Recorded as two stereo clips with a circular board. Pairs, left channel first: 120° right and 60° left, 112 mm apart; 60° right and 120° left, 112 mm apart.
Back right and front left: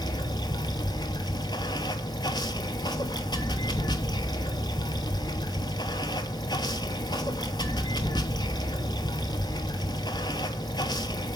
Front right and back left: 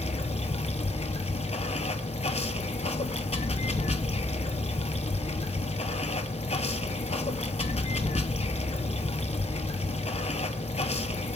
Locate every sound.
0.0 s running water: 70° right, 0.8 m